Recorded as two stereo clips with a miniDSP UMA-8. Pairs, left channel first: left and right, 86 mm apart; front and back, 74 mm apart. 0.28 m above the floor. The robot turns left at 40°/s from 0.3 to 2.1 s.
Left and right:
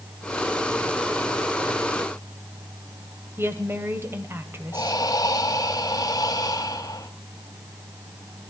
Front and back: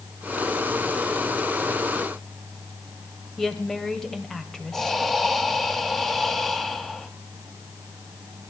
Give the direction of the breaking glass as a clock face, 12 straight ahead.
No breaking glass in this recording.